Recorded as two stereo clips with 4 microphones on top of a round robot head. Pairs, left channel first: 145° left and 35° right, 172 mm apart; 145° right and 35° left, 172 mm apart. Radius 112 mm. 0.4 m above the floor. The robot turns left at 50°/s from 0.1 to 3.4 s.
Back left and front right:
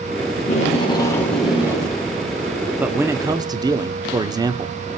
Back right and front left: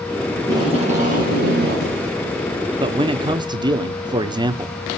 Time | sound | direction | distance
0.4 | tape being pulled | 110° left | 4.5 m
2.8 | a man speaking | 35° left | 1.2 m